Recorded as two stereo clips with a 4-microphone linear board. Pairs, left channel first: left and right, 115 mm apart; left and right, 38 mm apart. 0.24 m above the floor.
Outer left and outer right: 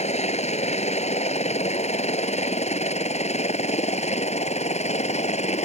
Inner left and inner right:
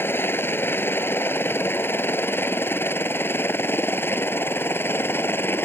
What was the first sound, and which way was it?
A helicopter, 70° left (ahead or behind).